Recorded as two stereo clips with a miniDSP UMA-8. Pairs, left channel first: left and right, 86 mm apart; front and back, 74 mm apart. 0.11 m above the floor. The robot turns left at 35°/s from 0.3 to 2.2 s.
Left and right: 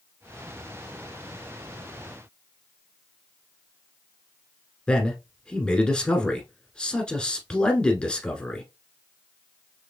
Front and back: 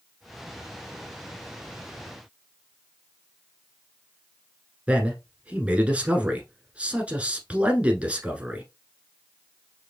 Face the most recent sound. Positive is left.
turn(degrees=150)